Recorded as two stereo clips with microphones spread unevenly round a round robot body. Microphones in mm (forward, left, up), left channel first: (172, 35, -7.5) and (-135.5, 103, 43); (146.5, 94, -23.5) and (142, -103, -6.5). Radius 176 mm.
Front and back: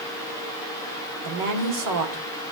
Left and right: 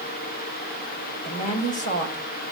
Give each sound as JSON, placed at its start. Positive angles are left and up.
{"t": 1.2, "sound": "a woman speaking", "azimuth_deg": 140, "distance_m": 3.5}